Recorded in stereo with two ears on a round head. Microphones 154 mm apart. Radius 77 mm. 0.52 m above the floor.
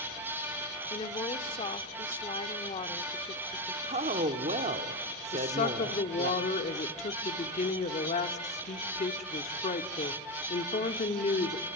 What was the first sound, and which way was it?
A woman speaking, 30° left (ahead or behind).